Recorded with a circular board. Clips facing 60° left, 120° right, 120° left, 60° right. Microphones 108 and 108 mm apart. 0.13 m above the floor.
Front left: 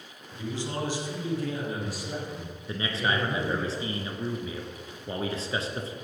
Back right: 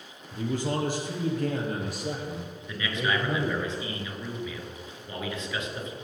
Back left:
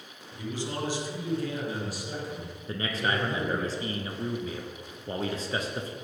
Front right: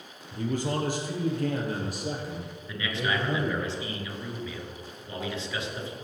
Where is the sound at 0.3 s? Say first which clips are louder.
Back right 4 dB, front right 5 dB; 90° right, 3 m; by 3.7 s 95° right, 4.5 m.